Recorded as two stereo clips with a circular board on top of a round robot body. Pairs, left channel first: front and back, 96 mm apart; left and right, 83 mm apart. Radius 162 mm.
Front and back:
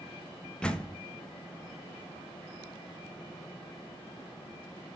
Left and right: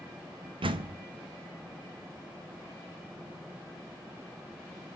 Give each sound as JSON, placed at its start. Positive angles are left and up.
{"t": 0.6, "sound": "a door slam", "azimuth_deg": -80, "distance_m": 1.3}